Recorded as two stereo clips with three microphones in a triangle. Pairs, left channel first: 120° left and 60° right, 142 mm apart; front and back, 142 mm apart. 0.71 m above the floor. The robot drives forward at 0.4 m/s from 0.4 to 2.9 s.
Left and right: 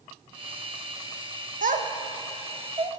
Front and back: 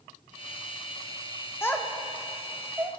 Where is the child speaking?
70° right, 0.7 m; by 2.9 s 115° right, 0.8 m.